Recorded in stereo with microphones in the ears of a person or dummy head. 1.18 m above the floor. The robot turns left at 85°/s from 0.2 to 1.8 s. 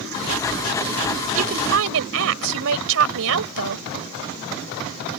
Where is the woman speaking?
45° right; by 3.9 s 80° right.